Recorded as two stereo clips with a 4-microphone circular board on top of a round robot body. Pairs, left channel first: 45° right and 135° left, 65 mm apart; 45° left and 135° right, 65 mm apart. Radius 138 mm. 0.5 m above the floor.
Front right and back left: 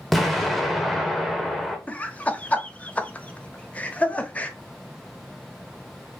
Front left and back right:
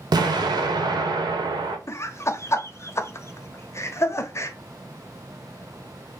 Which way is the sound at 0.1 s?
135° right.